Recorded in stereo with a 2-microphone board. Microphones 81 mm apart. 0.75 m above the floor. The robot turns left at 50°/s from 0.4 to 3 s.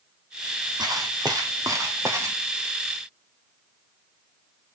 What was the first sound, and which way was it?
Footsteps, 55° right (ahead or behind).